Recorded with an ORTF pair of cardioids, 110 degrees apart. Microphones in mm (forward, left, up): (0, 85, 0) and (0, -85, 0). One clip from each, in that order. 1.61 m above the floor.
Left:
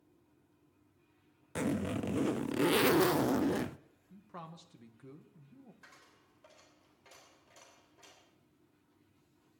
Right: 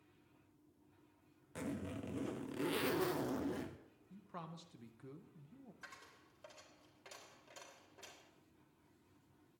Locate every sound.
1.6 s a zipper: 50° left, 0.7 m
4.1 s a man speaking: 5° left, 1.9 m
5.8 s a dropped coin: 30° right, 3.5 m